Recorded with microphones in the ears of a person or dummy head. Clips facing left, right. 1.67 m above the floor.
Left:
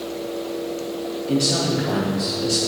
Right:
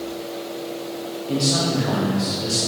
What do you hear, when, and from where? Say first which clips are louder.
1.3 s a man speaking: left 1 dB; 15° left (ahead or behind), 1.3 m